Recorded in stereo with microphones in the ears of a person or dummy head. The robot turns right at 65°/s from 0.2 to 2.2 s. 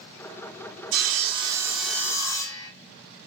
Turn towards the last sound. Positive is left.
turn(degrees=20)